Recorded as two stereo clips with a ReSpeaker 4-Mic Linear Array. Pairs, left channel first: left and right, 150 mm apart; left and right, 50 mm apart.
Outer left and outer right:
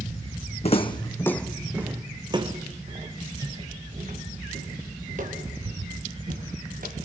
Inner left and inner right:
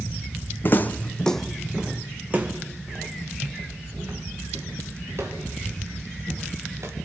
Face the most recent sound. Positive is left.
turn(degrees=-65)  # may be behind; listen again after turning